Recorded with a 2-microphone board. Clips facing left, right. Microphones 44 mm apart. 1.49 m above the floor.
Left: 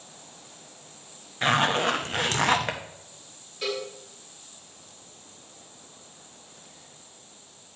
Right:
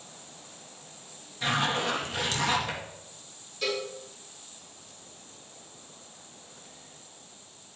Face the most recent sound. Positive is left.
turn(degrees=20)  # may be behind; listen again after turning